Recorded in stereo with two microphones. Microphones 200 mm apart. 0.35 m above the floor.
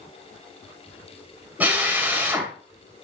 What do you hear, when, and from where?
1.6 s a drill: 10° right (ahead or behind), 1.9 m